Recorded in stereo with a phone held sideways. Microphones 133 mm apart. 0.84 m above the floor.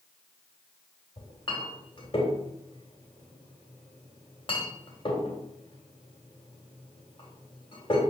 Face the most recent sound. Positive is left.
turn(degrees=40)  # may be behind; listen again after turning